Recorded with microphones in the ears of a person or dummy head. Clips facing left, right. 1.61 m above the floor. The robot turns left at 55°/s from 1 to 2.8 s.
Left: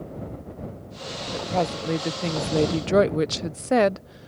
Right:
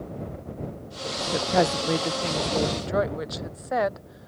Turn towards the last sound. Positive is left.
turn(degrees=130)